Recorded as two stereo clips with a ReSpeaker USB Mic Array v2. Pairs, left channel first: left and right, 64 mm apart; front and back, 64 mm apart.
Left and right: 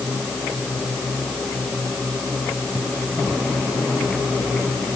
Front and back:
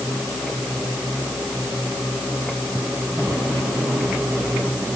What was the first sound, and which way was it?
Only background noise.